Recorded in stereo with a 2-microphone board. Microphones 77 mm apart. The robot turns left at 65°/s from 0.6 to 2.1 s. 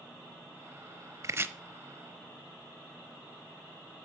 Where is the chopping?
40° right (ahead or behind), 0.7 m; by 1.5 s 25° right (ahead or behind), 0.7 m.